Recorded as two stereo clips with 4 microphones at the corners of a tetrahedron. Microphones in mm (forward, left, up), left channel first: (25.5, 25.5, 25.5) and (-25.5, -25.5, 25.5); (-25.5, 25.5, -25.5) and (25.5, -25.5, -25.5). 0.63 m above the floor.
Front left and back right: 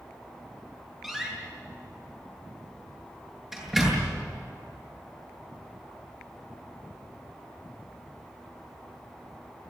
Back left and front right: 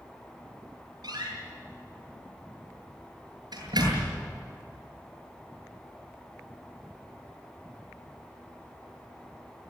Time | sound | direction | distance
1.0 | a door slam | 50° right | 8.5 m